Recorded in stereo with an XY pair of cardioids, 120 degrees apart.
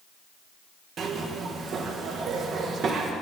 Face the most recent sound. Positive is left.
turn(degrees=-50)